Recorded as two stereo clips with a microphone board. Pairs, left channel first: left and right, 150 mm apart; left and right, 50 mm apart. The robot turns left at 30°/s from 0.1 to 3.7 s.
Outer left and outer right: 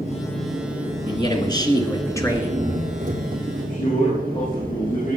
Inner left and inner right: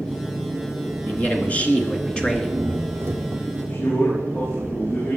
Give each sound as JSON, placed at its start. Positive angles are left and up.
{"t": 0.0, "sound": "an engine running", "azimuth_deg": 20, "distance_m": 3.5}
{"t": 1.1, "sound": "a man speaking", "azimuth_deg": 70, "distance_m": 2.0}
{"t": 3.5, "sound": "a man speaking", "side_deg": 40, "distance_m": 7.5}